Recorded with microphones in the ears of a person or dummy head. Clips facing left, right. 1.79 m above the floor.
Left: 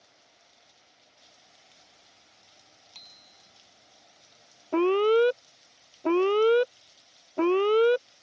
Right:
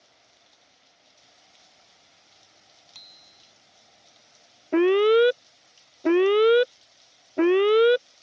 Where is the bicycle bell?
5° right (ahead or behind).